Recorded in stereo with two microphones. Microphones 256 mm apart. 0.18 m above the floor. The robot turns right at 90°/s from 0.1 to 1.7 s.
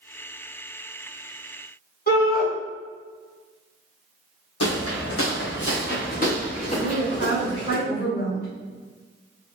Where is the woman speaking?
40° left (ahead or behind), 1.9 m.